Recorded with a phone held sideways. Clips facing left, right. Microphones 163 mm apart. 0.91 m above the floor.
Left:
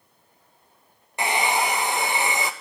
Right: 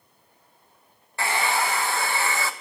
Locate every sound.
1.2 s a hair dryer: 20° left (ahead or behind), 0.8 m